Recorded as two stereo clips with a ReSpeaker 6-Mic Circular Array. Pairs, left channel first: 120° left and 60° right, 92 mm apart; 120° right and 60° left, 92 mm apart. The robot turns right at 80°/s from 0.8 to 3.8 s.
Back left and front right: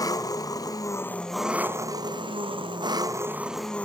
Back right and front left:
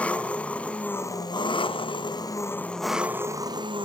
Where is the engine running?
165° left, 1.1 m; by 3.9 s 45° left, 1.1 m.